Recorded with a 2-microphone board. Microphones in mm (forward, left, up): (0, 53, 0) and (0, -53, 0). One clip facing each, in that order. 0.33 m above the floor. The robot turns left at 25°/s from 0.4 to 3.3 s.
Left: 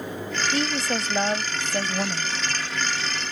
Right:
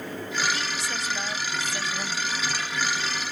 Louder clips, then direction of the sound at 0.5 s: Left 6 dB; 100° left.